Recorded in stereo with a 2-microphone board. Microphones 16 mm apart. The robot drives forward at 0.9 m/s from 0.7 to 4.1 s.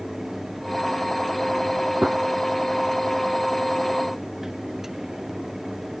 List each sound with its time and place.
2.0 s a gunshot: 70° right (ahead or behind); by 2.2 s 55° right (ahead or behind)